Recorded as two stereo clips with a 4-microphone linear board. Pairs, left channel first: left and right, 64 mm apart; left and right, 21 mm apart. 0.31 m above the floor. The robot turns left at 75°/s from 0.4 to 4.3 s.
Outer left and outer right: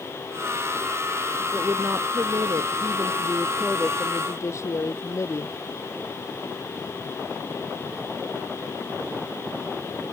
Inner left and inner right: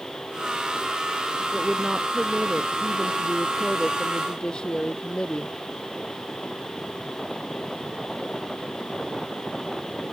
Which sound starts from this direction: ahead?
A woman speaking, at 1.5 s.